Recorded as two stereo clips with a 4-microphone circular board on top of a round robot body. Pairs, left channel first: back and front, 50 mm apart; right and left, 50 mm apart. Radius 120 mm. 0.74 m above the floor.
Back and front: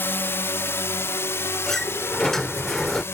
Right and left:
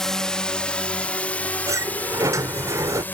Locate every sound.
0.0 s a drone: 170° right; by 3.1 s 145° right
1.7 s a sliding door: 95° left